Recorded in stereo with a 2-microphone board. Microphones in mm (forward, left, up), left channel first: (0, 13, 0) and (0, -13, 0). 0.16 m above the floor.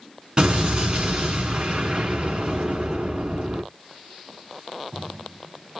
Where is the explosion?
30° right (ahead or behind), 1.3 m.